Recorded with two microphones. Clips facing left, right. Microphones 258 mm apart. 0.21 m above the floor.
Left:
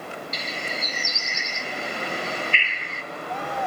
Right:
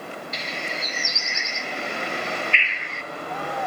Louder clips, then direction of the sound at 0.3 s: Even; 45° left (ahead or behind).